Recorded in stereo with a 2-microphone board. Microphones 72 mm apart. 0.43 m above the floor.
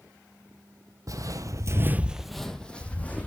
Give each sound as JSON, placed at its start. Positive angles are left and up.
{"t": 1.1, "sound": "footsteps", "side_deg": -50, "distance_m": 0.8}